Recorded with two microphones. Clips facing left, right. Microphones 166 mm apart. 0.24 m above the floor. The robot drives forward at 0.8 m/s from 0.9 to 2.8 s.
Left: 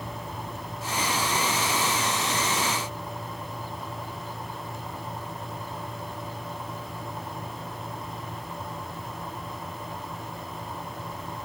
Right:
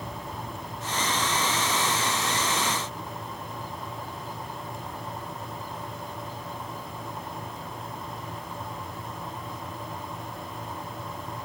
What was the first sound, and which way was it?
Only background noise.